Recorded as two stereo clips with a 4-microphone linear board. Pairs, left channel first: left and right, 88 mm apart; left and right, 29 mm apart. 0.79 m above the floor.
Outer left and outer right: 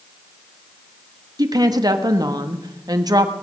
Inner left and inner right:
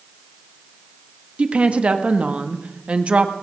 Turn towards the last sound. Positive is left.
turn(degrees=-45)  # may be behind; listen again after turning